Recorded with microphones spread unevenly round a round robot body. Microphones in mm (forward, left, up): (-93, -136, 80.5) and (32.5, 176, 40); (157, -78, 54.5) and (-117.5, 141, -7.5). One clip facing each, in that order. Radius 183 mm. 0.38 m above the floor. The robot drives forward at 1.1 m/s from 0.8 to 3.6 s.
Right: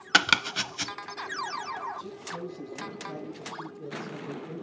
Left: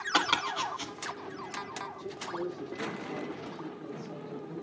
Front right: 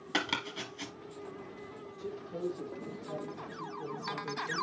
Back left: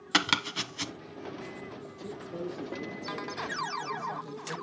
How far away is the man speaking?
About 3.5 m.